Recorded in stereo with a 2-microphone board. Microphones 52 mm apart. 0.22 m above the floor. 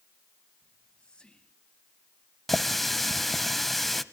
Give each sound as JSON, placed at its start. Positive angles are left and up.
{"t": 0.6, "sound": "whispering", "side_deg": 20, "distance_m": 1.2}
{"t": 2.5, "sound": "a running tap", "side_deg": 5, "distance_m": 0.6}